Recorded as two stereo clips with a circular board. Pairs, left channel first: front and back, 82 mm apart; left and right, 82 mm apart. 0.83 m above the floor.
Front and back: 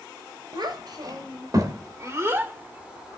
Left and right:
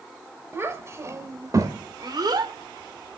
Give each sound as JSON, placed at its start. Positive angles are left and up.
{"t": 0.5, "sound": "a child speaking", "azimuth_deg": -150, "distance_m": 3.0}